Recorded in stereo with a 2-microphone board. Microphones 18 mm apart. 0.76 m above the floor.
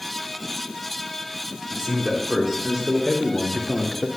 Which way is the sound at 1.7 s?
25° right (ahead or behind).